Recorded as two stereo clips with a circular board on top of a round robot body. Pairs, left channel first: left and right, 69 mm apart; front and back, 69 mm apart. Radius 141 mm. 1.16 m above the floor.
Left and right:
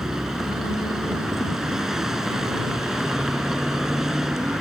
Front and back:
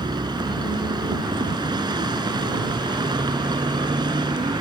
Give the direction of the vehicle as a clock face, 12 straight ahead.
6 o'clock.